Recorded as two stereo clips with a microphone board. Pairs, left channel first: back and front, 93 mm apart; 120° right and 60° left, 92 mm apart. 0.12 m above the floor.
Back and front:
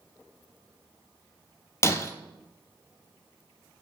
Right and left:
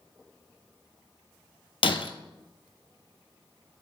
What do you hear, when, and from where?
1.8 s breaking glass: 125° right, 0.6 m